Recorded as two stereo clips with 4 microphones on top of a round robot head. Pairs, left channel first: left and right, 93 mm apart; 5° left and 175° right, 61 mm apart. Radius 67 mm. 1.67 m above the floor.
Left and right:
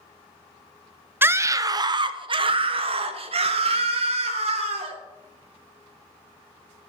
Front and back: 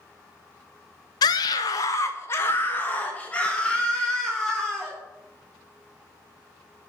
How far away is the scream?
About 0.9 m.